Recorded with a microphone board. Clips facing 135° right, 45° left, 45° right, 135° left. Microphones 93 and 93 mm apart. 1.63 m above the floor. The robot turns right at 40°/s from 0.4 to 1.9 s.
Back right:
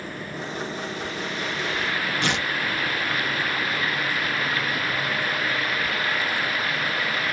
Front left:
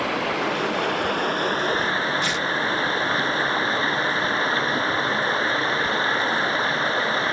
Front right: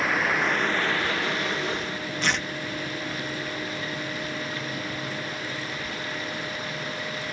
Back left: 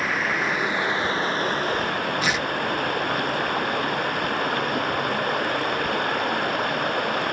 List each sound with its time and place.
0.0 s running water: 45° left; by 7.3 s 105° left
2.2 s tearing paper: 140° right